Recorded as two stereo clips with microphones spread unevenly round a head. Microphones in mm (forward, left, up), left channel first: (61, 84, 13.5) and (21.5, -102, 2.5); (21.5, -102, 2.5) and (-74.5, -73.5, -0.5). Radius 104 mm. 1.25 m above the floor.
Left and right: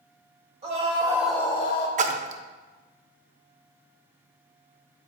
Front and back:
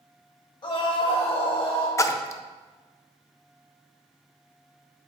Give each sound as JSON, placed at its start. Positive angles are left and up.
{"t": 0.6, "sound": "a scream", "azimuth_deg": -50, "distance_m": 1.6}
{"t": 2.0, "sound": "a splash", "azimuth_deg": -70, "distance_m": 0.6}